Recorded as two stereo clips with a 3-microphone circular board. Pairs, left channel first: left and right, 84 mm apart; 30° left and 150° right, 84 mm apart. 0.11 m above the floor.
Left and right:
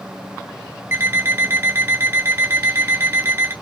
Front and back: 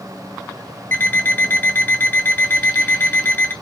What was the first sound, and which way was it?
An alarm clock, 35° right.